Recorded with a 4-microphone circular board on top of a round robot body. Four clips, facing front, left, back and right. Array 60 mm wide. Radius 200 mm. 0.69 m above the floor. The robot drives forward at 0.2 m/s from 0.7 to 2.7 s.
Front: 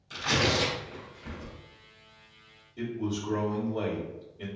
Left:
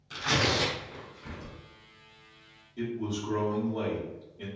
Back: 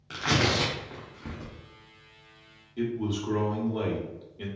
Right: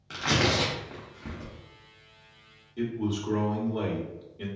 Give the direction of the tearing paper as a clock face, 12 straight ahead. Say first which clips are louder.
Right 2 dB, back 1 dB; 5 o'clock.